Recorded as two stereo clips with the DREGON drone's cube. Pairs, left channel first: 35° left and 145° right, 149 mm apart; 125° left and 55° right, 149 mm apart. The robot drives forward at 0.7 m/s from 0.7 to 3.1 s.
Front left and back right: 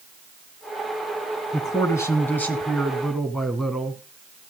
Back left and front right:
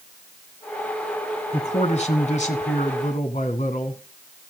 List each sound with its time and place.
1.5 s a man speaking: 90° left, 2.5 m; by 4.0 s 125° left, 2.5 m